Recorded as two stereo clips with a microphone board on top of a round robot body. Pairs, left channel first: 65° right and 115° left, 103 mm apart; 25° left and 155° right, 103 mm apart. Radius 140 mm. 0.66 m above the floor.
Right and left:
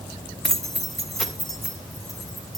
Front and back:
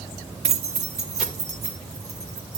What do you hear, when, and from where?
0.4 s keys jangling: 155° right, 1.1 m